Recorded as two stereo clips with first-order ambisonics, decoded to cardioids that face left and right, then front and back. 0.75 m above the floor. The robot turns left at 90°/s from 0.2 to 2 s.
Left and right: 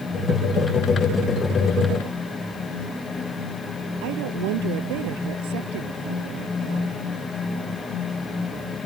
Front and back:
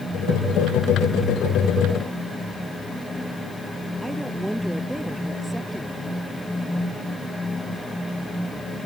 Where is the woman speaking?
95° right.